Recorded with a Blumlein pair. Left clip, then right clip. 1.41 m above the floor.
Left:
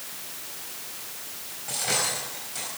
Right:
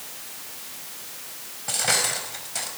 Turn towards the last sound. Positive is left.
turn(degrees=-70)